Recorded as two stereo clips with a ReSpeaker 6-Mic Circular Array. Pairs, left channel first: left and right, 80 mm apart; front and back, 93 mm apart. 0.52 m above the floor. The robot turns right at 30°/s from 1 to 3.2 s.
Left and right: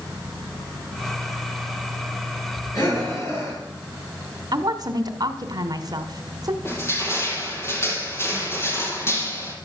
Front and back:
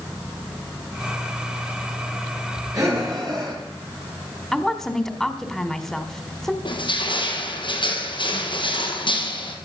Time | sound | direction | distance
2.7 | breathing | 130° left | 9.5 m
4.5 | a woman speaking | 85° right | 2 m
6.7 | crushing | 30° left | 3.5 m